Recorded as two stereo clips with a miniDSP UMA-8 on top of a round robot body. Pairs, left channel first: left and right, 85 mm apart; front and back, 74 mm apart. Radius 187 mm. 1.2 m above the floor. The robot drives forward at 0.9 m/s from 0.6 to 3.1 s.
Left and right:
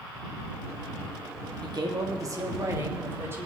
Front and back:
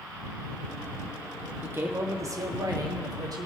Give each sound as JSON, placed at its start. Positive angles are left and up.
{"t": 1.6, "sound": "a man speaking", "azimuth_deg": -120, "distance_m": 1.3}